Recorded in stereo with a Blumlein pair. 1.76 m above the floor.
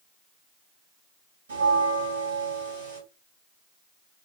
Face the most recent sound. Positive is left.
turn(degrees=-65)